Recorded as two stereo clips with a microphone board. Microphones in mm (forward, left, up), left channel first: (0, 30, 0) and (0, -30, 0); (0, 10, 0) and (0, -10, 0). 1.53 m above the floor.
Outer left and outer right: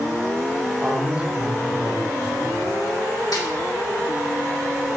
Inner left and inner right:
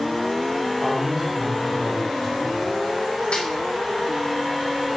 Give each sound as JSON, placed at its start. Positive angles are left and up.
{"t": 0.8, "sound": "a man speaking", "side_deg": -20, "distance_m": 1.8}
{"t": 3.3, "sound": "a snare drum", "side_deg": 75, "distance_m": 2.5}